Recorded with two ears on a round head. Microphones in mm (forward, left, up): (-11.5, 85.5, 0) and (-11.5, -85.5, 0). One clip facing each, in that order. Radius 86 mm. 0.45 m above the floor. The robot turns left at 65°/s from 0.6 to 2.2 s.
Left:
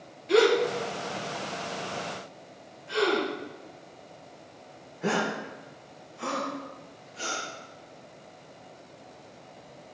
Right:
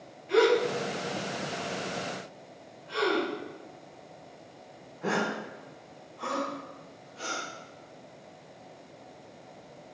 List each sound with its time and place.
0.3 s a gasp: 50° left (ahead or behind), 5.5 m; by 7.4 s 25° left (ahead or behind), 5.5 m